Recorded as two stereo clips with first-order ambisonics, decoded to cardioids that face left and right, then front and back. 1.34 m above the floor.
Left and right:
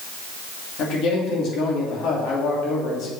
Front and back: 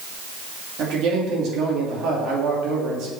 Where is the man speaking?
135° left, 3 m.